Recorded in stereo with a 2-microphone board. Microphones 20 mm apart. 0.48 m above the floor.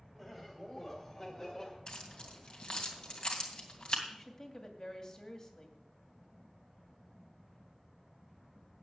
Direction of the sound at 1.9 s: 45° left (ahead or behind).